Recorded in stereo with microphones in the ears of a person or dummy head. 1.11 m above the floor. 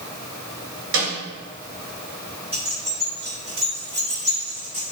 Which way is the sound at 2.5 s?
30° right (ahead or behind).